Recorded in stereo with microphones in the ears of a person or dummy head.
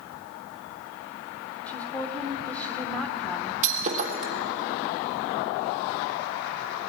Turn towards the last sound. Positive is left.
turn(degrees=-40)  # may be behind; listen again after turning